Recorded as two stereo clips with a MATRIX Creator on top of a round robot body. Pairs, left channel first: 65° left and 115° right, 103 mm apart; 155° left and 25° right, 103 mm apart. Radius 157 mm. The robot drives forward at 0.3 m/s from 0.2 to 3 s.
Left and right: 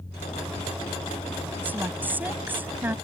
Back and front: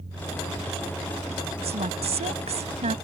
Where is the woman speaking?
40° right.